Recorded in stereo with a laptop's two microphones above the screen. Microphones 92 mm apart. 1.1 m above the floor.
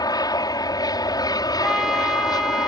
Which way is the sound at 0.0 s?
45° left (ahead or behind).